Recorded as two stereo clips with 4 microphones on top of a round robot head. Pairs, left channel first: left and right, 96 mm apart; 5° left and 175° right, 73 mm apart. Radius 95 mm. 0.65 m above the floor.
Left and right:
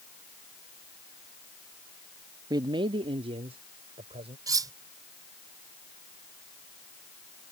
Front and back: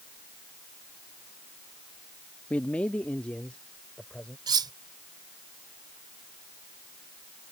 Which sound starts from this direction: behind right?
Cutlery clinking, at 4.5 s.